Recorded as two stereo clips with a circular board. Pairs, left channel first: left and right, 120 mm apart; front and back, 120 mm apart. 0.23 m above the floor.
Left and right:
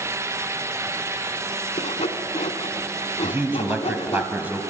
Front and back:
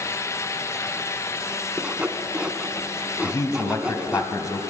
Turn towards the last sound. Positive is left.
turn(degrees=-25)